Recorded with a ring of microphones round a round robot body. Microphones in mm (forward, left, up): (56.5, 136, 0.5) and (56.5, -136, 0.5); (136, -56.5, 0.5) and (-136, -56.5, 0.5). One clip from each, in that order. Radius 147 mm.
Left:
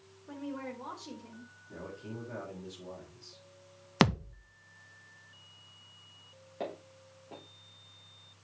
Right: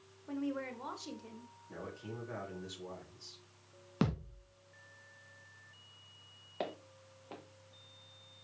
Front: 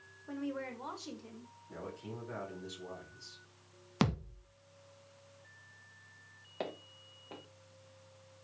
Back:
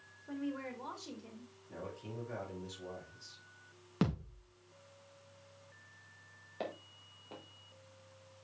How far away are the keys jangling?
No keys jangling in this recording.